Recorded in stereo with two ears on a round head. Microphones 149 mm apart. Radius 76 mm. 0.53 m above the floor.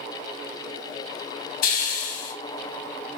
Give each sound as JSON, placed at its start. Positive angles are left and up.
{"t": 1.6, "sound": "a hiss", "side_deg": 50, "distance_m": 1.5}